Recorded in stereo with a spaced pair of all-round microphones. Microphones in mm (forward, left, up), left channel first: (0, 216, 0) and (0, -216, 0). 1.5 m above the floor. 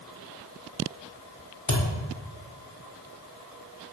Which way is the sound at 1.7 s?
40° left (ahead or behind).